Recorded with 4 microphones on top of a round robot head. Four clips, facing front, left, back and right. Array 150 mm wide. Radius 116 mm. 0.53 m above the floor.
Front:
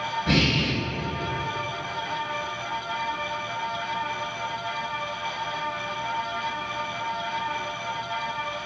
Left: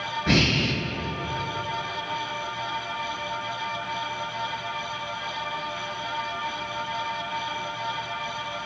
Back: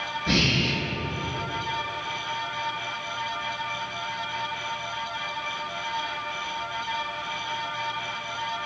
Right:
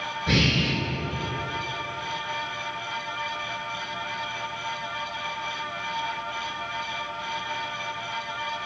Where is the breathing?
90° left, 1.0 m.